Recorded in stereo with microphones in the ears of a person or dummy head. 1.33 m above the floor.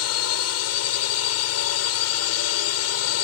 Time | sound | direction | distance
0.0 | a drone | 75° left (ahead or behind) | ?